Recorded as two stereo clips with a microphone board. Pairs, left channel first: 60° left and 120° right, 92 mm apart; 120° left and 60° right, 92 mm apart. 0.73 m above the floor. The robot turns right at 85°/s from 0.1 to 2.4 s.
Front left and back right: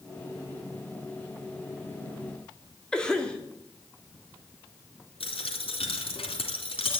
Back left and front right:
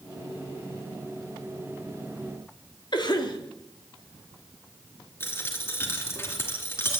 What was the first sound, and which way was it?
A cough, 140° left.